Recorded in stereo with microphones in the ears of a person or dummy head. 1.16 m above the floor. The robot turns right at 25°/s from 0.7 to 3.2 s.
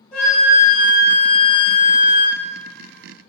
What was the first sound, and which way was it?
A flute, 5° left.